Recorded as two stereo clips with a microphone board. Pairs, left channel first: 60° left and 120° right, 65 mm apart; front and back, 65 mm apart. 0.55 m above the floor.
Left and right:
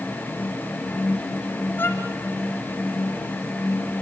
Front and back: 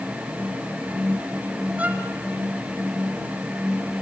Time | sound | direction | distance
1.8 | a violin | 110° left | 1.2 m